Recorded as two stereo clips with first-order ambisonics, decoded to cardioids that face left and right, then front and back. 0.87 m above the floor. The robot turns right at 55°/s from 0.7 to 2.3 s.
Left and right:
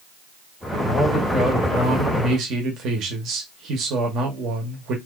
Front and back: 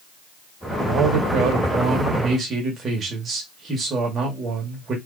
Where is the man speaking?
160° left, 1.2 m; by 5.0 s 120° right, 1.2 m.